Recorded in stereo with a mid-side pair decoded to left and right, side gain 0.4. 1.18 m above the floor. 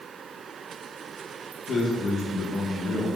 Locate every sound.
1.7 s a man speaking: 65° left, 1.3 m